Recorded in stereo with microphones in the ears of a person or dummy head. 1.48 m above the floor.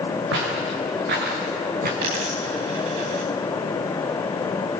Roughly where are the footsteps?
Right.